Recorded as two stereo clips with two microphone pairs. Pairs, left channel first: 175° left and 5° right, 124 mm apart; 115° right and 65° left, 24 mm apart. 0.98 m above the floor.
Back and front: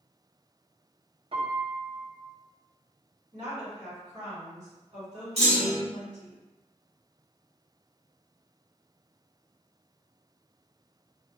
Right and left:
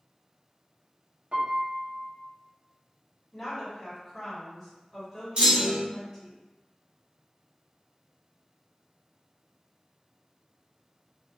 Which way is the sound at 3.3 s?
40° right.